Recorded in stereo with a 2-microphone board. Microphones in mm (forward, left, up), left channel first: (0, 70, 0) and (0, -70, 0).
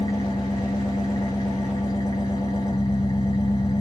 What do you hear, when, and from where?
0.0 s an engine running: 30° left (ahead or behind), 2.5 m